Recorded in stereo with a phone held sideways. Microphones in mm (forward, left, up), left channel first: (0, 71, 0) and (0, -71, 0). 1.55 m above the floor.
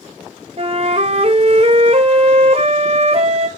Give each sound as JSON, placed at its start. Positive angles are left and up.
{"t": 0.6, "sound": "a flute", "side_deg": -45, "distance_m": 1.1}